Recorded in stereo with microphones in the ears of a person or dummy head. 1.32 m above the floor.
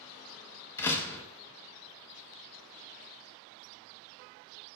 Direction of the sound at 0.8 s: 15° left (ahead or behind).